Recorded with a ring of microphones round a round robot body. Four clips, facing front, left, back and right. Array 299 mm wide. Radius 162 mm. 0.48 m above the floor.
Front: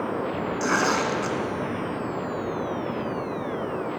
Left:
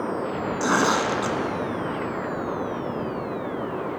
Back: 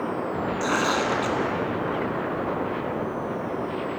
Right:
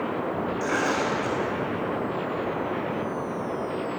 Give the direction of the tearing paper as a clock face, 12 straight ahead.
9 o'clock.